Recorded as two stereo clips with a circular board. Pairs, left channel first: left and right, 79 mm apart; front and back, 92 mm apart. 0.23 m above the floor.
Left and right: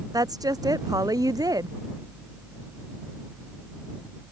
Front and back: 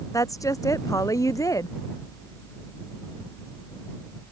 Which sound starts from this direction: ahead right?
A woman speaking, at 0.1 s.